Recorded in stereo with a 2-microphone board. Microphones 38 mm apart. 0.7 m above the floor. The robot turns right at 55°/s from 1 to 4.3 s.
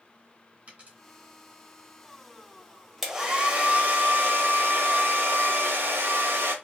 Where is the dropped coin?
40° right (ahead or behind), 2.5 m.